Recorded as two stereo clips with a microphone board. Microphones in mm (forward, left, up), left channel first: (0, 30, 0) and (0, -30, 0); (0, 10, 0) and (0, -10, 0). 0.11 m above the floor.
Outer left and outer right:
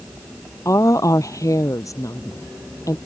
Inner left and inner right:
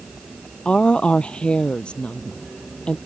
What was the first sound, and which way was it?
A woman speaking, 65° left (ahead or behind).